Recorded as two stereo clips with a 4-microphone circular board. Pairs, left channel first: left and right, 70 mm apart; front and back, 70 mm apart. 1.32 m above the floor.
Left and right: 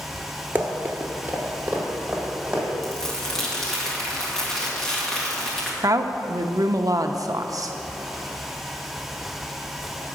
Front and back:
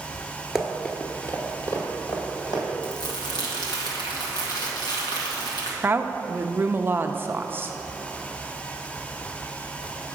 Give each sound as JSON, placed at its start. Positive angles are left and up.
{"t": 0.6, "sound": "running footsteps", "azimuth_deg": -105, "distance_m": 1.4}
{"t": 2.8, "sound": "crumpling", "azimuth_deg": 10, "distance_m": 1.6}
{"t": 5.8, "sound": "a woman speaking", "azimuth_deg": -120, "distance_m": 0.6}